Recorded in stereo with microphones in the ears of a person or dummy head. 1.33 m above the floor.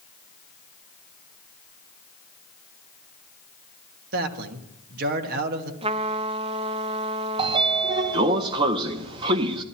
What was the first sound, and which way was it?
A man speaking, 55° right (ahead or behind).